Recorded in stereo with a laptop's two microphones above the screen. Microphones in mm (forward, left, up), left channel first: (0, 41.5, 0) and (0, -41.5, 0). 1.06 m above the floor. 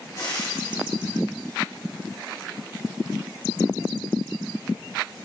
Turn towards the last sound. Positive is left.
turn(degrees=45)  # may be behind; listen again after turning